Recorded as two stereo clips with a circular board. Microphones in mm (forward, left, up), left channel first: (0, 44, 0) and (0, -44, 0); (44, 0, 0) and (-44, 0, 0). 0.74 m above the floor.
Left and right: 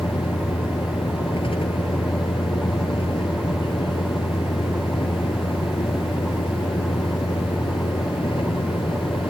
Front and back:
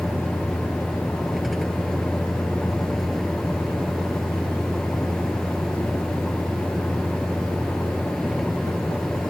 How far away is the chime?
I don't hear a chime.